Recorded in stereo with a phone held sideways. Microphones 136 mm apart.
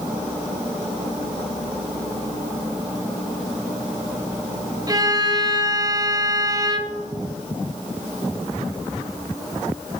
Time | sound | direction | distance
4.9 | a violin | 30° right (ahead or behind) | 1.0 m